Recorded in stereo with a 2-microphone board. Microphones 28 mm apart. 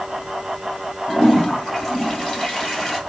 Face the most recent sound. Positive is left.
turn(degrees=0)  # may be behind; listen again after turning